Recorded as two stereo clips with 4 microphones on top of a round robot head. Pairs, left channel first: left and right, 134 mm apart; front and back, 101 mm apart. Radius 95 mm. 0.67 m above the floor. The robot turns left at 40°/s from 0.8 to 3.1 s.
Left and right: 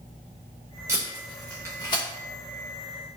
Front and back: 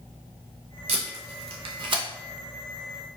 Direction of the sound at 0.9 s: 165° right.